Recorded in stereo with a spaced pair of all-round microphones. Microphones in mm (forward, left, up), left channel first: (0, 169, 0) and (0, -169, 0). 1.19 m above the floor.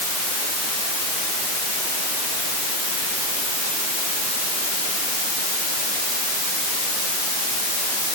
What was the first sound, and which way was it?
Only background noise.